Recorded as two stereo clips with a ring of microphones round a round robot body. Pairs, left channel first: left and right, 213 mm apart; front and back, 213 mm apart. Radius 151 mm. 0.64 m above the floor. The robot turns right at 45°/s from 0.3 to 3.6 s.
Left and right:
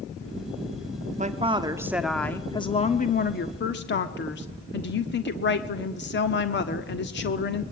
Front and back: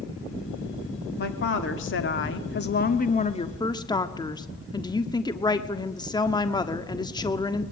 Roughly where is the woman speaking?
Ahead right.